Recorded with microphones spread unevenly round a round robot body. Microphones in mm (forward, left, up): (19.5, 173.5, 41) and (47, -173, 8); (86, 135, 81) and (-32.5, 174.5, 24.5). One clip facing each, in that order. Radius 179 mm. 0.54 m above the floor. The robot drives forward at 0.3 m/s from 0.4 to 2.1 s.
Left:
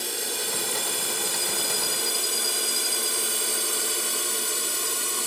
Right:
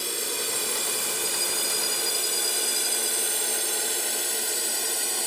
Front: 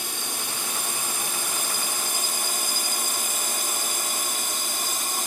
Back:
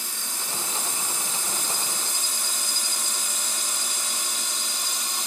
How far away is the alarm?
I don't hear an alarm.